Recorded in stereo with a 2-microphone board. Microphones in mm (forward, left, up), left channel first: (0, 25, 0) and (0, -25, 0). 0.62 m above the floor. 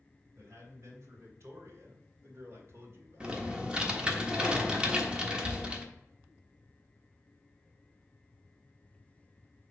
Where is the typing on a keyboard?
20° right (ahead or behind), 1.2 m.